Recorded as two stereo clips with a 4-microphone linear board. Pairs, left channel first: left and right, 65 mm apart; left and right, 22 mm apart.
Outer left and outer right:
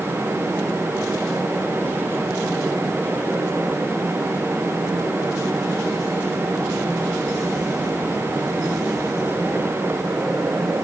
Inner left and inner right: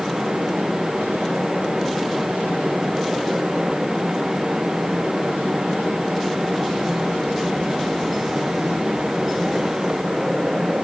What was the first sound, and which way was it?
Only background noise.